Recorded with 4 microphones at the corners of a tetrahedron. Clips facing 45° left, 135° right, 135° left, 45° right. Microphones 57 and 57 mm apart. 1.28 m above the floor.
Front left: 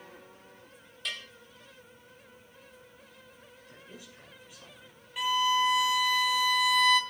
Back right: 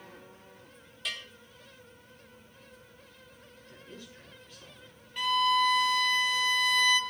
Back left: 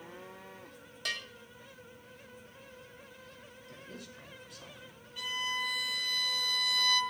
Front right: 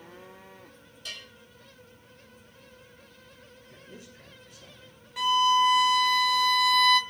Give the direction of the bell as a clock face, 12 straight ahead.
7 o'clock.